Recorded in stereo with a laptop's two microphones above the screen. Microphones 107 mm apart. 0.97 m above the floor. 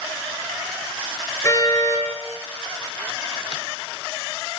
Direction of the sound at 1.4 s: 30° left (ahead or behind).